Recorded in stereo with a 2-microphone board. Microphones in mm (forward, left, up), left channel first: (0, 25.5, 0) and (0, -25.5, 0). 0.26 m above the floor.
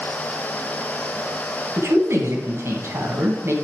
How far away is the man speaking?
About 2.5 m.